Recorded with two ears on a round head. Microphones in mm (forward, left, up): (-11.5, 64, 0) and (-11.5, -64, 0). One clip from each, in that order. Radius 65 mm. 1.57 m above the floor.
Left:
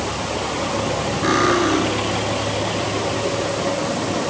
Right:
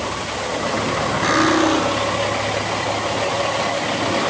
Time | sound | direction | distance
1.2 | cutlery clinking | 30° right (ahead or behind) | 7 m